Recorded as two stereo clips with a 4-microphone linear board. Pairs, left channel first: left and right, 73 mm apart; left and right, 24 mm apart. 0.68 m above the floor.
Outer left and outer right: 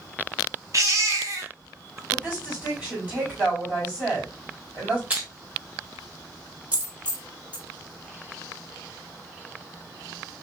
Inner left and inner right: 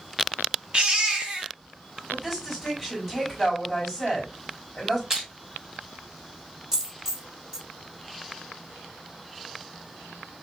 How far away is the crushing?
About 2.5 m.